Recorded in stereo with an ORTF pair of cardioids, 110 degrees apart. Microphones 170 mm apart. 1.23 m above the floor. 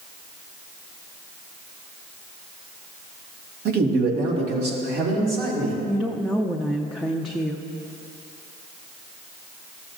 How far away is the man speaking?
About 1.6 m.